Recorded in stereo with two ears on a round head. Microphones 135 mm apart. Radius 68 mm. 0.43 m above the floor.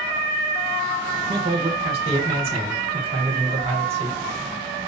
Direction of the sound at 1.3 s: 40° right (ahead or behind).